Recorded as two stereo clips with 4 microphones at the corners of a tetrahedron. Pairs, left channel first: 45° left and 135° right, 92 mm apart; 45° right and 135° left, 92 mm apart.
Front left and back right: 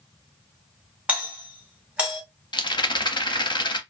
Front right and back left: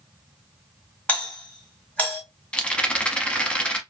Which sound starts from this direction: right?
A doorbell, at 1.1 s.